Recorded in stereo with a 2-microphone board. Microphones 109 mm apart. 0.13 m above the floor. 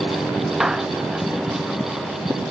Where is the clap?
5° right (ahead or behind).